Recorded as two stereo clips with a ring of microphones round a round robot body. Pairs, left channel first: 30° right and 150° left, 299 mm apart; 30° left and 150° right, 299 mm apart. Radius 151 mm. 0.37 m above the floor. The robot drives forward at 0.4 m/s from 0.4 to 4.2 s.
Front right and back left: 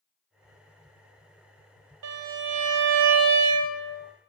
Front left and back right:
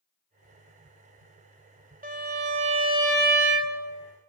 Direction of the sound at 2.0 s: 150° left.